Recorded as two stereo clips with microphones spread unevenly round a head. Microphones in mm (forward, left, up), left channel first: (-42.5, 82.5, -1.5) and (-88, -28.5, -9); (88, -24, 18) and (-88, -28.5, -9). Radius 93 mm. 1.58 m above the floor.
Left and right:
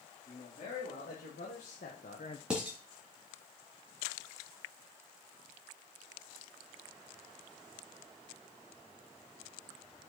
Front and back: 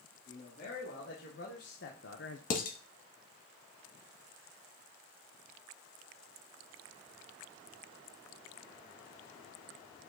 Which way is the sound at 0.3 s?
40° left.